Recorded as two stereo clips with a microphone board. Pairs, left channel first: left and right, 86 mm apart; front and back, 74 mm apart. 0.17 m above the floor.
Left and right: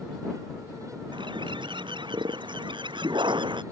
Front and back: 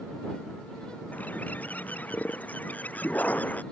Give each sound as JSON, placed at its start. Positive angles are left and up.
{"t": 1.1, "sound": "a bird", "azimuth_deg": -70}